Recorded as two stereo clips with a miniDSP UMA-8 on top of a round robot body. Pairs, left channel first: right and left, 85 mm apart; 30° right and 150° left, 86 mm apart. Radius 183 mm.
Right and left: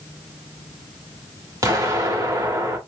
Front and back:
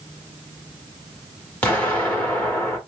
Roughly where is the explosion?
Ahead left.